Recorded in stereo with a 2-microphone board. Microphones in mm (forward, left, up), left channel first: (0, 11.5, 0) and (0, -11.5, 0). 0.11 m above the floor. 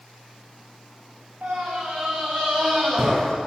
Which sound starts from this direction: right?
A scream, at 1.4 s.